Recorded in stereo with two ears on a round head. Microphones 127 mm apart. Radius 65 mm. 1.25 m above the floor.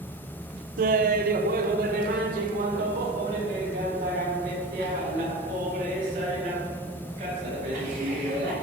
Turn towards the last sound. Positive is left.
turn(degrees=-50)  # may be behind; listen again after turning